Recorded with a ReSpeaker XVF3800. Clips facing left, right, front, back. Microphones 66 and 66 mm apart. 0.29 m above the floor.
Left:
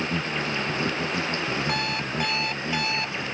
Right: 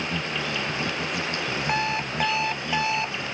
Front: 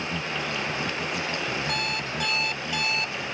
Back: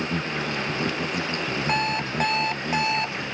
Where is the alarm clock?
145° right.